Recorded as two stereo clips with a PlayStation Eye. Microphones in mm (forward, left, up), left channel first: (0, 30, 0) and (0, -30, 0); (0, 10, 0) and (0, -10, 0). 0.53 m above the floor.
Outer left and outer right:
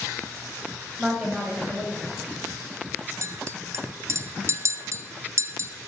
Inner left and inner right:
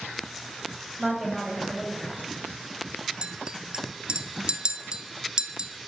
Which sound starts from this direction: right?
A clink, at 3.2 s.